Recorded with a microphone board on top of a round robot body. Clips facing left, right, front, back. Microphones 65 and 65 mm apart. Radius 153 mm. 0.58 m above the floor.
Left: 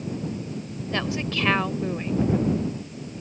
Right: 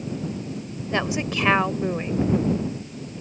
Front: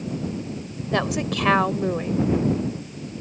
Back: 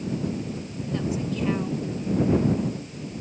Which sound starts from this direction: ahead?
A woman speaking, at 0.9 s.